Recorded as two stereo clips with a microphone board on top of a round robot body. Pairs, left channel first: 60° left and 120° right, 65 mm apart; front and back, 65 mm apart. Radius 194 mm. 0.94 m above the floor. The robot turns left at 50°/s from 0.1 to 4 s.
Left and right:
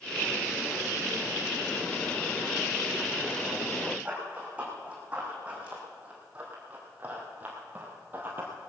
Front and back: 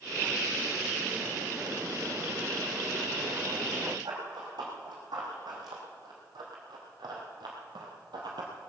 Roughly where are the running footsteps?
Behind.